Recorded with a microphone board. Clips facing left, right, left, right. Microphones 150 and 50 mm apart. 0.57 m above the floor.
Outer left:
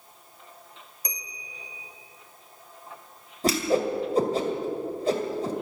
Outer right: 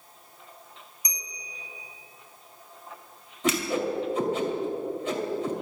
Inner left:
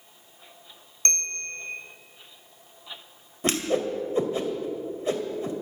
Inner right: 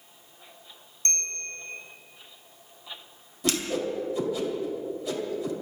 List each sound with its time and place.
1.1 s a bell: 60° left (ahead or behind), 2.5 m
3.4 s a whoosh: 35° left (ahead or behind), 2 m